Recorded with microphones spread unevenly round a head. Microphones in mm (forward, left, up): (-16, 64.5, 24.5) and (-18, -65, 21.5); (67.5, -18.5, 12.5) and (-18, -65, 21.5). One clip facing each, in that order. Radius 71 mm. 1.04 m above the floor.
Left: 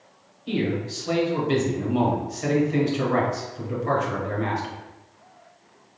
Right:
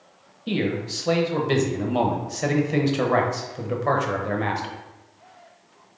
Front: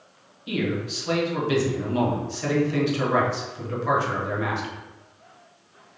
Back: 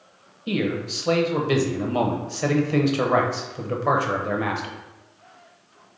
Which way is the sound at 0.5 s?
115° right.